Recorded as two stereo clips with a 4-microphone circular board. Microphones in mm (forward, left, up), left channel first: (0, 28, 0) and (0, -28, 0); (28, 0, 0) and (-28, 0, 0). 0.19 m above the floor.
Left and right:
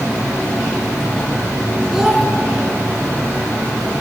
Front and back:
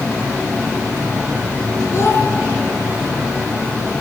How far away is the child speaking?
About 1.3 m.